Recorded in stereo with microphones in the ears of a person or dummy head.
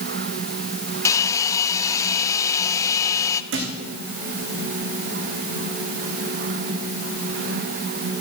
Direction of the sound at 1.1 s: 20° left (ahead or behind).